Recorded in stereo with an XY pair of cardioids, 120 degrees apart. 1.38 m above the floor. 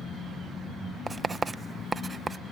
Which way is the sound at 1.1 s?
25° right.